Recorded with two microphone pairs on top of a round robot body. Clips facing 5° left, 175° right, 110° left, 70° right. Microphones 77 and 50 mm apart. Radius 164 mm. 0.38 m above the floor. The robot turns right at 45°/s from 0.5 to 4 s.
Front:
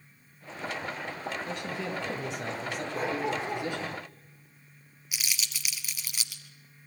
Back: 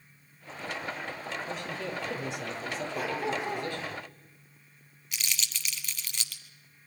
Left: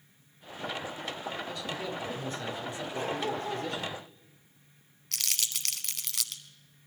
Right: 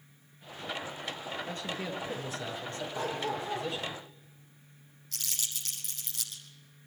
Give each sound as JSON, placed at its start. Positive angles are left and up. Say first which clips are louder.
{"t": 1.5, "sound": "a man speaking", "louder": "front 1 dB, left 1 dB", "azimuth_deg": -20, "distance_m": 8.5}
{"t": 2.9, "sound": "a dog barking", "louder": "front 2 dB, left 1 dB", "azimuth_deg": 65, "distance_m": 6.5}
{"t": 5.1, "sound": "crumpling", "louder": "even, left 5 dB", "azimuth_deg": 90, "distance_m": 0.7}